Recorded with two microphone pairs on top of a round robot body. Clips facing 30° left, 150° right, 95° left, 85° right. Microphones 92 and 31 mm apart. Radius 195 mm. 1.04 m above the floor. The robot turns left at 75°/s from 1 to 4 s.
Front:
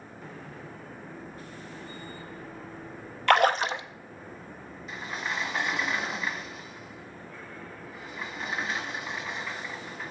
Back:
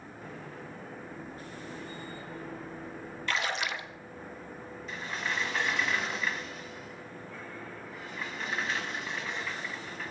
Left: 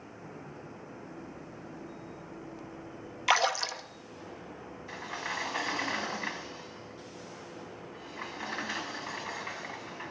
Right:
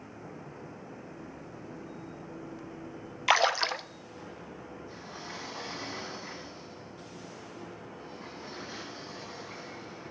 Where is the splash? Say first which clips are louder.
Front 11 dB, right 2 dB; straight ahead, 0.7 m; by 3.8 s 45° right, 0.7 m.